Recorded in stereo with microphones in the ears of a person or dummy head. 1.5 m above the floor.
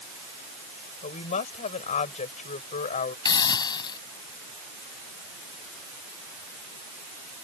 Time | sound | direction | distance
1.0 | a woman speaking | 40° left (ahead or behind) | ?
3.2 | a hiss | 20° left (ahead or behind) | ?